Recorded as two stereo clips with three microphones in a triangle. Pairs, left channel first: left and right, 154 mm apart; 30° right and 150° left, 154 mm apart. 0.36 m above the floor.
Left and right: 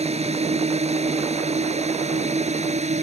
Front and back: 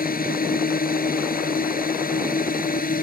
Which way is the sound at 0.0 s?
45° right.